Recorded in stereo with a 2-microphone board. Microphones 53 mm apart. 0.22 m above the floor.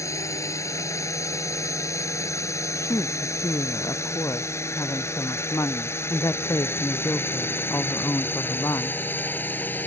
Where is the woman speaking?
70° left (ahead or behind).